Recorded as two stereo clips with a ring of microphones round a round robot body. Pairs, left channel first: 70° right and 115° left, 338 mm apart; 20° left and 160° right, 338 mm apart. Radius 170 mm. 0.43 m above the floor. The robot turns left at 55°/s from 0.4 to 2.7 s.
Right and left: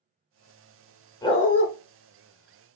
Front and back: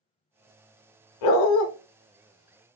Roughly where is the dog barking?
Ahead.